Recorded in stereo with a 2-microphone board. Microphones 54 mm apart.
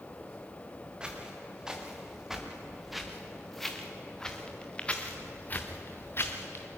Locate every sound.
1.0 s footsteps: 15° right (ahead or behind), 4 m; by 6.7 s 50° left (ahead or behind), 2.5 m